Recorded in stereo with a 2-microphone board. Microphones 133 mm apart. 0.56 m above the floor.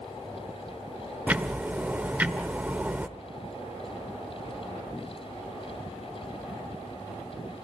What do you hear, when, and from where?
1.3 s ticking: 10° right (ahead or behind), 0.8 m